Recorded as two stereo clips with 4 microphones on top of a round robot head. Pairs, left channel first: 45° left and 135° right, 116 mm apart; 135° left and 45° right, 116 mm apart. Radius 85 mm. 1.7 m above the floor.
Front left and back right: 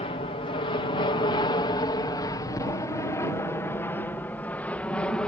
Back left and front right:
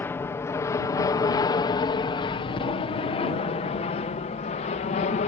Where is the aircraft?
65° left; by 5.3 s 130° left.